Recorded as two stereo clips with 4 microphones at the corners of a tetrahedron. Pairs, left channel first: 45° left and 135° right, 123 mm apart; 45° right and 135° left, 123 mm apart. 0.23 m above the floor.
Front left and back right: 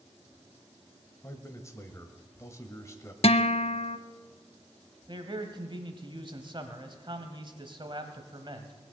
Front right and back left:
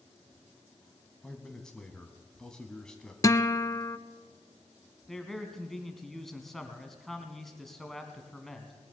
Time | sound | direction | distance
1.2 | a man speaking | 30° left | 1.0 m
3.2 | a guitar | 15° left | 0.5 m
5.1 | a man speaking | 130° right | 1.5 m